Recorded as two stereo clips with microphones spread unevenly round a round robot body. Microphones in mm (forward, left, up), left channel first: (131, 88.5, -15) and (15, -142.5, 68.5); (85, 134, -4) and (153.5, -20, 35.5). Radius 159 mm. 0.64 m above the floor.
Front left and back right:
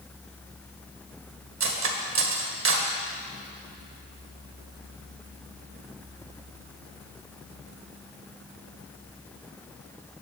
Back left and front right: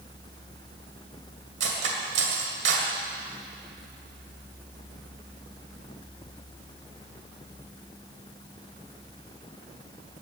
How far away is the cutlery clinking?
About 1.9 m.